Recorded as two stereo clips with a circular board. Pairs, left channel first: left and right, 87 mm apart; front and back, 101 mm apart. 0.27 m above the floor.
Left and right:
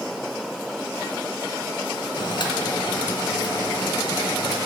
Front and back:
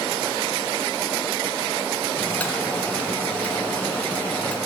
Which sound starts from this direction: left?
Boiling, at 2.2 s.